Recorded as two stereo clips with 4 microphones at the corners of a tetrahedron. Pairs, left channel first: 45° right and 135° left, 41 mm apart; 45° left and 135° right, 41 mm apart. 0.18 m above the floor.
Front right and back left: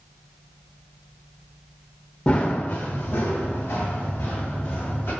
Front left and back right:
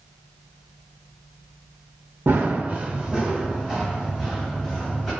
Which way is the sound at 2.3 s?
100° right.